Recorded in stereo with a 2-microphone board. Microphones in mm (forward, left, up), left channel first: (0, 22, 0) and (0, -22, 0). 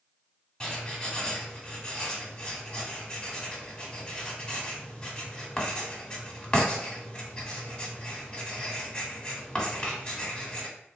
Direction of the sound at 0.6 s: 20° left (ahead or behind).